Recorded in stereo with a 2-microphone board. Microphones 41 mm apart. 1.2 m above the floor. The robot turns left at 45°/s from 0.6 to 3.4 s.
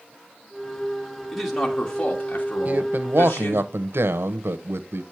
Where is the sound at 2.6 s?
45° right, 0.8 m; by 5.0 s 80° right, 0.8 m.